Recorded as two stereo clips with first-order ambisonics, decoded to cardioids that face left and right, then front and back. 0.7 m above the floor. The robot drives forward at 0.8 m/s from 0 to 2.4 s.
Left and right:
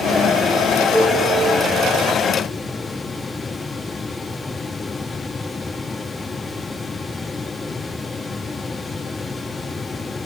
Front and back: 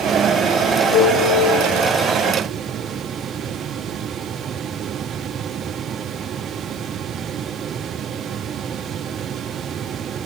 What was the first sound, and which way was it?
A piano, 5° left.